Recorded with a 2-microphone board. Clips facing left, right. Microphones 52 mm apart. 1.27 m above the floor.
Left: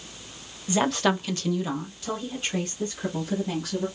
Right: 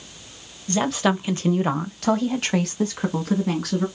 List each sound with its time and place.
0.7 s a woman speaking: 10° left (ahead or behind), 0.8 m; by 3.9 s 80° right, 1.9 m